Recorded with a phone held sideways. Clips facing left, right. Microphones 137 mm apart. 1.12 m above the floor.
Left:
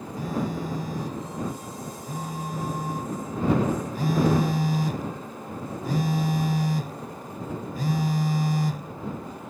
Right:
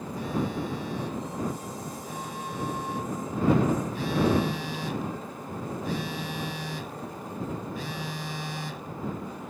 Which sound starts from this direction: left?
A phone buzzing, at 0.2 s.